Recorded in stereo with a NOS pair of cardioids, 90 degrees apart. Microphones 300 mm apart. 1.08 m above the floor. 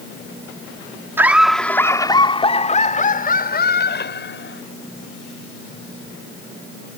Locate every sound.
1.2 s laughter: 10° right; by 4.6 s 40° left